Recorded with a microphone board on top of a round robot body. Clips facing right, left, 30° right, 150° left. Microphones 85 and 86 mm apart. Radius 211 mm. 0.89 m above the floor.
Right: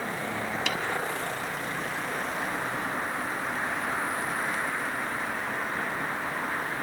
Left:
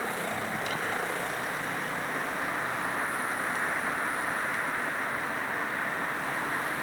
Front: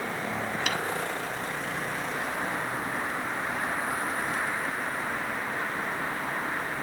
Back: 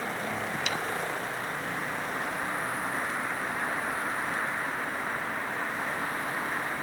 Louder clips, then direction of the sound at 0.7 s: Right 2 dB, front 3 dB; 70° right.